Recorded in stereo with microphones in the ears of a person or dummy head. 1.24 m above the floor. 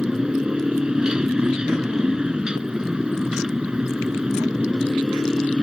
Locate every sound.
0.0 s a motorcycle: 5° right (ahead or behind)